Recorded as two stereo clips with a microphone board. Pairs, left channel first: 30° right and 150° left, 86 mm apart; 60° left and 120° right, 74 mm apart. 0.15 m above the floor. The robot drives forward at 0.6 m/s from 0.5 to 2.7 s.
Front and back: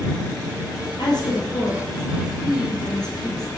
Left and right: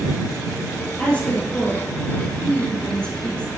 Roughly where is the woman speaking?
Ahead.